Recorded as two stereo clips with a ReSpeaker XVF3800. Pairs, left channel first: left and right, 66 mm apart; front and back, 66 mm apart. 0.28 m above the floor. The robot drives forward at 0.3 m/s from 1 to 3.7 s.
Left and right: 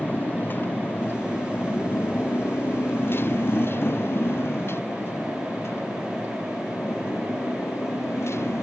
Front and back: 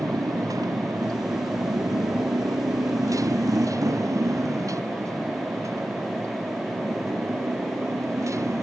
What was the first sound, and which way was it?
A motorcycle, 155° left.